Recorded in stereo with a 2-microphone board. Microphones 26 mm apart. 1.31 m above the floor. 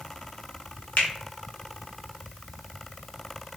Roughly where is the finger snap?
Left.